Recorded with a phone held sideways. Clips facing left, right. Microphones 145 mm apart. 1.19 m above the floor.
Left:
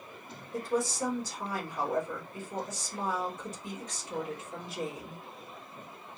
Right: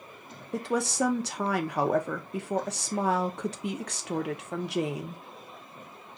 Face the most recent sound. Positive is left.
turn(degrees=-75)  # may be behind; listen again after turning